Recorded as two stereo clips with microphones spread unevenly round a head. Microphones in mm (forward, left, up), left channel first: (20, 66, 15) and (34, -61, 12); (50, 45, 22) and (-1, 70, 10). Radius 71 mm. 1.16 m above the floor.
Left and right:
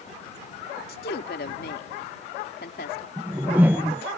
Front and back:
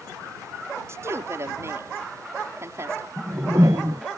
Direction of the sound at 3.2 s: 165° right.